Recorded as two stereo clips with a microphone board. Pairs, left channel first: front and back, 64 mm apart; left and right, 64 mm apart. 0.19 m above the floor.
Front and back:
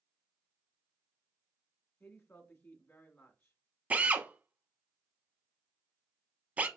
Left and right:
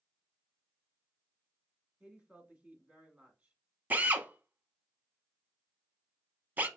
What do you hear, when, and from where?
2.0 s a woman speaking: 35° right, 1.3 m
3.9 s a drill: 130° right, 0.6 m